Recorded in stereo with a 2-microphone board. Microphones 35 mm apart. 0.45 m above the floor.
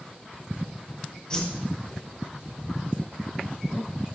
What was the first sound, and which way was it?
A whoosh, 25° left (ahead or behind).